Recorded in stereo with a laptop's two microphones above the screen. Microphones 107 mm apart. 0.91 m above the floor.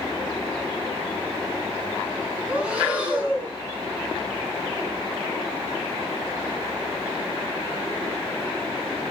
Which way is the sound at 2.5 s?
15° right (ahead or behind).